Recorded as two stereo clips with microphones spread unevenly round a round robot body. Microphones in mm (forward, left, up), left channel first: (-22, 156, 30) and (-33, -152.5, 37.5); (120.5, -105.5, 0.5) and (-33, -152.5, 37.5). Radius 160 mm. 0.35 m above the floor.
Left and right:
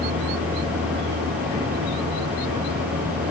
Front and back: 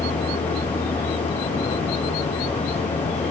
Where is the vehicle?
30° right.